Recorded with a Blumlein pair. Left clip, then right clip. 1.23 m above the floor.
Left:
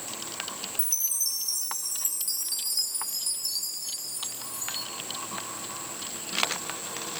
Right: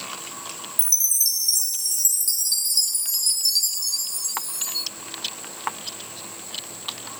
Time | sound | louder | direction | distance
0.8 | a chime | right 8 dB | 65° right | 0.5 m